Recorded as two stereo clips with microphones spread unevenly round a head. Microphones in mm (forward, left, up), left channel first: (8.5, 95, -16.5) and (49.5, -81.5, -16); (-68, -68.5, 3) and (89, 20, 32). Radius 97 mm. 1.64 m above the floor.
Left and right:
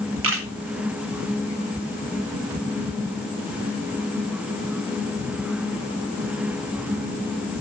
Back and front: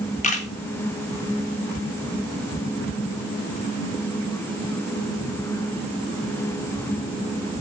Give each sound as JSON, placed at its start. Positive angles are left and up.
{"t": 0.2, "sound": "a camera shutter", "azimuth_deg": -95, "distance_m": 2.0}